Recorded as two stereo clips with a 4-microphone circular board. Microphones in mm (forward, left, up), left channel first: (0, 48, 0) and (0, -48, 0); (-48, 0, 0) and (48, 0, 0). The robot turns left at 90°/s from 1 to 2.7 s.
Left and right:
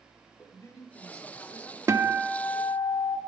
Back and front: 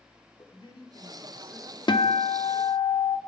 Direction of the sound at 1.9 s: 145° right.